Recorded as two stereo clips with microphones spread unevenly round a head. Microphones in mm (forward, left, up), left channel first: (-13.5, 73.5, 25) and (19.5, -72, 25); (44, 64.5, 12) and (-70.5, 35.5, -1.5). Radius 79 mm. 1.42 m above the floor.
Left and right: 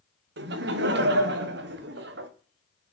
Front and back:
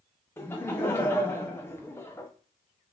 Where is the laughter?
65° right, 0.7 m.